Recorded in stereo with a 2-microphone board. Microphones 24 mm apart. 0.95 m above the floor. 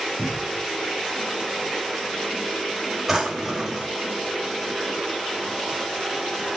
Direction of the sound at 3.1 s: 10° right (ahead or behind).